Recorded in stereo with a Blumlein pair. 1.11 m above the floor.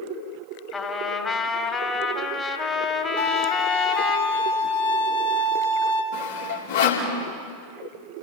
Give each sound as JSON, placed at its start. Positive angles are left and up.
{"t": 0.7, "sound": "a trumpet", "azimuth_deg": 20, "distance_m": 2.0}
{"t": 3.2, "sound": "a violin", "azimuth_deg": 55, "distance_m": 2.5}
{"t": 6.1, "sound": "sawing", "azimuth_deg": 65, "distance_m": 3.5}